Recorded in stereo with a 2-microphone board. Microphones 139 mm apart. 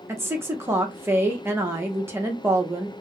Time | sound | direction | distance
0.1 | a woman speaking | 15° right (ahead or behind) | 0.8 m